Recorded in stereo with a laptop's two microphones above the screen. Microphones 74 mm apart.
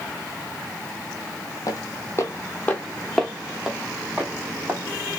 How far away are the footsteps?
About 1.4 m.